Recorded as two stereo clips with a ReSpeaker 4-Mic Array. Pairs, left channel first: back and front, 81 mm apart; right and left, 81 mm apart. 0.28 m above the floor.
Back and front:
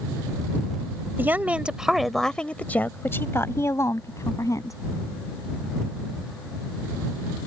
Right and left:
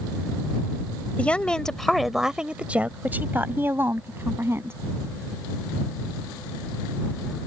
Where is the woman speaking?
35° right; by 4.8 s 145° left.